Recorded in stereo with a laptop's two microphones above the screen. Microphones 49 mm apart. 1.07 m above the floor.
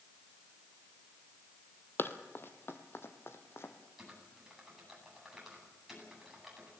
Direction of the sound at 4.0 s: 10° right (ahead or behind).